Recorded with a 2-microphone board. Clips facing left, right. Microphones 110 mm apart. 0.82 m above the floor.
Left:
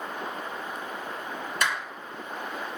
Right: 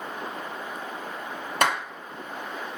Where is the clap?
70° right (ahead or behind), 1.4 m.